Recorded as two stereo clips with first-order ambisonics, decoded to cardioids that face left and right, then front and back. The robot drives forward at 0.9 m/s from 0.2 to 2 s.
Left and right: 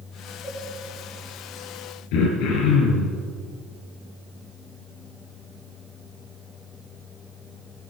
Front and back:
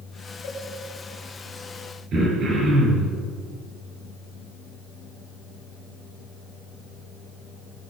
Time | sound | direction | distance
0.4 | a cowbell | 10° left | 3.5 m
2.1 | throat clearing | 115° left | 4 m